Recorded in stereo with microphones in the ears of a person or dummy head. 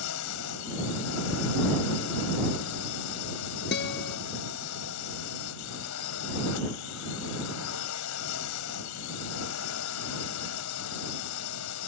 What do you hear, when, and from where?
0.0 s a drone: 80° left
3.7 s a guitar: 60° left (ahead or behind)